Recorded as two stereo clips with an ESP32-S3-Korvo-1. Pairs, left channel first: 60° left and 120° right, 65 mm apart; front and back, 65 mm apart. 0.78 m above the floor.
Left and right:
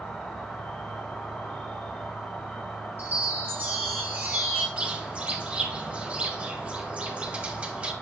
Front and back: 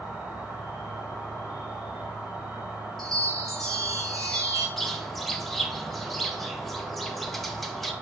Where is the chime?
85° right, 1.2 m.